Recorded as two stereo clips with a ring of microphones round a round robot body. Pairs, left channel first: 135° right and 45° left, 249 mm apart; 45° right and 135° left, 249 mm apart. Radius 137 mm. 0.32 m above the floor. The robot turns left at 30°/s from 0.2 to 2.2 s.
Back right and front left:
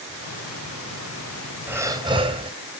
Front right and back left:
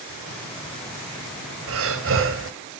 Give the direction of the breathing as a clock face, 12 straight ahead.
8 o'clock.